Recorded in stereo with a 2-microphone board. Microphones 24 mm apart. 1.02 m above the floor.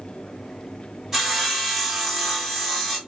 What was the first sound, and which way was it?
Sawing, 25° right (ahead or behind).